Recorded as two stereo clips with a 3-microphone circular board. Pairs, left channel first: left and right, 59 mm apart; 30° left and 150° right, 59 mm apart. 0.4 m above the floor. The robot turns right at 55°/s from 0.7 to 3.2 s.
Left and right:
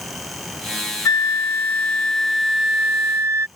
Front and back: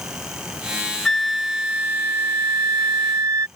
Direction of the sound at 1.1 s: 110° left.